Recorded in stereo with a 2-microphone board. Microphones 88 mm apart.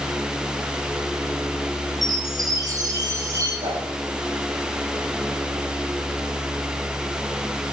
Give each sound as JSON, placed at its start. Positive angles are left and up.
{"t": 2.0, "sound": "a chime", "side_deg": -50, "distance_m": 8.5}
{"t": 3.6, "sound": "a whoosh", "side_deg": -80, "distance_m": 9.5}